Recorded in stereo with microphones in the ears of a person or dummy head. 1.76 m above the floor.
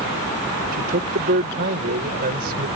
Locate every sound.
0.7 s a man speaking: 50° right (ahead or behind)